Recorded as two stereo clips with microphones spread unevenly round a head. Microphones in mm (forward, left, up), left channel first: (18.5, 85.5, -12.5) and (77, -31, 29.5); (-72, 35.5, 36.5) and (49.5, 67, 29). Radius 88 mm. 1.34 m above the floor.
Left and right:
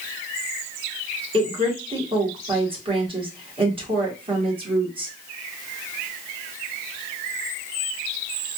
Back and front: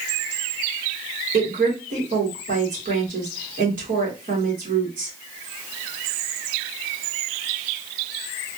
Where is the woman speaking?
20° right, 2 m.